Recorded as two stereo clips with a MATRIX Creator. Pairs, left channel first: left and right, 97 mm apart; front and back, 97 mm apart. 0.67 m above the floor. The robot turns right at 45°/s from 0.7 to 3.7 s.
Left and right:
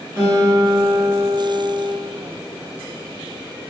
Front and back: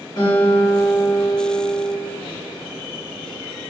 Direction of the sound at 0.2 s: 35° right.